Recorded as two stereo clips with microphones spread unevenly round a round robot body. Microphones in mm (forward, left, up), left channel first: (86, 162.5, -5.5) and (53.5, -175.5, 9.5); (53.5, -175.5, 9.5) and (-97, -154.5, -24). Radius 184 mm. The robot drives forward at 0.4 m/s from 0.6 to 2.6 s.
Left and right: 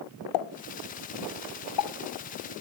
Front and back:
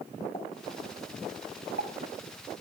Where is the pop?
70° left, 0.5 m; by 1.9 s 125° left, 0.6 m.